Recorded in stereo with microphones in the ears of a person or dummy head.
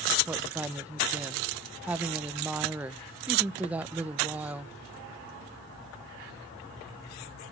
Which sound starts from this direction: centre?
A woman speaking, at 0.3 s.